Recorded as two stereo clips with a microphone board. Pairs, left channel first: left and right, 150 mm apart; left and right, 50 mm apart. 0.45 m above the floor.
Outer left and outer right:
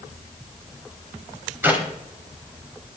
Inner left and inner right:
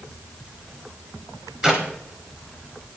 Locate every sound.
1.6 s a clap: 15° right (ahead or behind), 2.5 m